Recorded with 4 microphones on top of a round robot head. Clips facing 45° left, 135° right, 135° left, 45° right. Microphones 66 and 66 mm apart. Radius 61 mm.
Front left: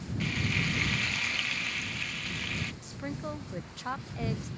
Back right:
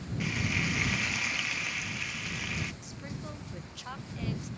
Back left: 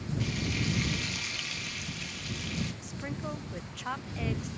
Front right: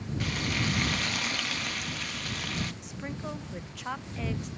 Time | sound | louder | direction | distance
0.2 | frying | even, front right 4 dB | 55° right | ?
2.8 | a woman speaking | front left 5 dB, even | 40° left | ?